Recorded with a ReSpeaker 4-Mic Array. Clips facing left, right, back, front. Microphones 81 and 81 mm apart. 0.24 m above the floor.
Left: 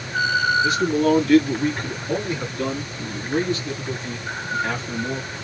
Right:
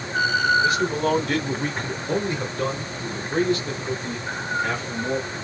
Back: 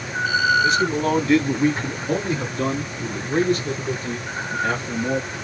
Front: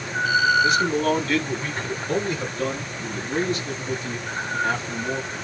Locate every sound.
0.6 s a man speaking: 90° right, 1.6 m; by 5.3 s 155° right, 5 m